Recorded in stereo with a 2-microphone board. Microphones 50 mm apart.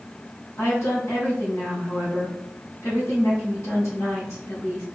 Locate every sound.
0.6 s a woman speaking: 65° left (ahead or behind), 3.5 m